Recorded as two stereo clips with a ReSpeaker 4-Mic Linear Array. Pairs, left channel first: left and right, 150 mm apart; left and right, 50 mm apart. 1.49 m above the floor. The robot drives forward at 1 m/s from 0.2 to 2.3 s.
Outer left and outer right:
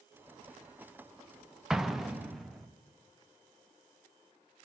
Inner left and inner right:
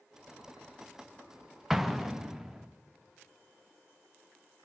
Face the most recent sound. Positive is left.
turn(degrees=0)  # may be behind; listen again after turning